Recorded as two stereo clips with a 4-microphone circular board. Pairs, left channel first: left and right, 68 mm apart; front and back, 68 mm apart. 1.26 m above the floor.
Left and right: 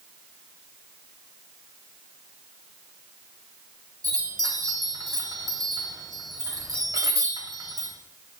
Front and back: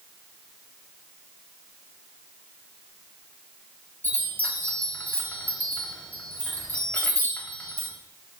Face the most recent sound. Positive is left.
turn(degrees=-65)